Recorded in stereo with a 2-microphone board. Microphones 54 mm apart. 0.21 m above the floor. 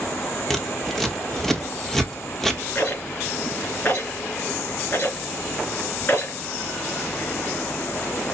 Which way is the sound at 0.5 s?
5° left (ahead or behind).